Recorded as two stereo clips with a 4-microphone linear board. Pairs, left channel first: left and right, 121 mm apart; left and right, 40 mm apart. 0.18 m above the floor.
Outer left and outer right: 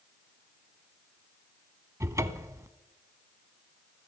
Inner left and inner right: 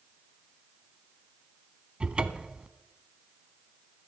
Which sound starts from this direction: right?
A cupboard door, at 2.0 s.